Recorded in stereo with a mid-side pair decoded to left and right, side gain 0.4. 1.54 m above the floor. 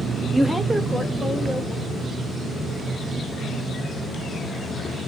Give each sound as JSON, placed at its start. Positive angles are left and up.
{"t": 0.3, "sound": "a woman speaking", "azimuth_deg": -20, "distance_m": 0.5}